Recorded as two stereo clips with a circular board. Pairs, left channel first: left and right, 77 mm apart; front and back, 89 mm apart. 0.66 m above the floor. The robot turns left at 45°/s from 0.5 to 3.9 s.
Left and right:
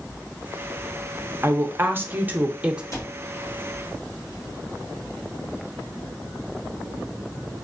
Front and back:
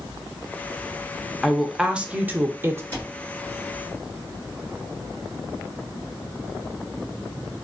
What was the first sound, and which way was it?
A woman speaking, 90° right.